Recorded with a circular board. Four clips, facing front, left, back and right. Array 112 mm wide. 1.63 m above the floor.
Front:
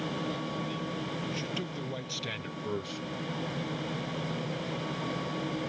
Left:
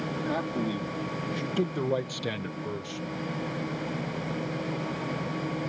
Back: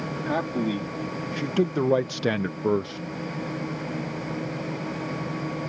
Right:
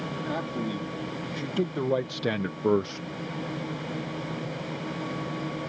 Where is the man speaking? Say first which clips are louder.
Left 1 dB, back 9 dB; 175° left; by 3.0 s 95° right.